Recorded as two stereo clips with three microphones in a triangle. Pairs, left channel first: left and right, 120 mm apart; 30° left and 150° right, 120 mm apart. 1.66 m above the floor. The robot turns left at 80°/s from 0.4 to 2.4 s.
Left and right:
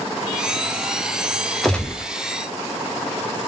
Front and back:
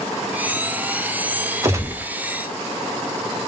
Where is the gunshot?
175° left, 0.5 m; by 2.1 s 135° left, 0.5 m.